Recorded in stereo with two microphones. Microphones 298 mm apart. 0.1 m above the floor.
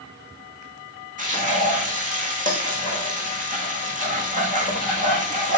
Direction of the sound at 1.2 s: 25° right (ahead or behind).